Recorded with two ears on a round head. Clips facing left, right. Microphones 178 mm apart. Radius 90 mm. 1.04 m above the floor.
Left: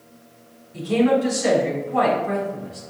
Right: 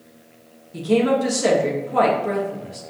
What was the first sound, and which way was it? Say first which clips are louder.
A woman speaking: even; 55° right (ahead or behind).